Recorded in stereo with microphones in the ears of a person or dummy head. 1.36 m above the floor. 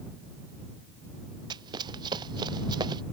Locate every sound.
1.5 s running footsteps: 25° right (ahead or behind)